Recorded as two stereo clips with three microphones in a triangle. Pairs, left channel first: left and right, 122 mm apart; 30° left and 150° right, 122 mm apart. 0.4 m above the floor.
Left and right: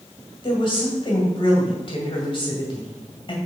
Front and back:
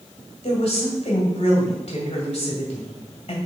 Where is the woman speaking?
50° left, 2 m.